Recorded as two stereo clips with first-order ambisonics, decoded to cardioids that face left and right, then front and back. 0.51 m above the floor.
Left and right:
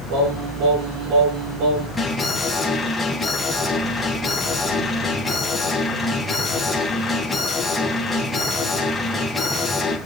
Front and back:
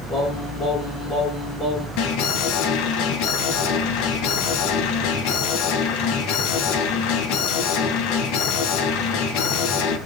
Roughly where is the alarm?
Ahead.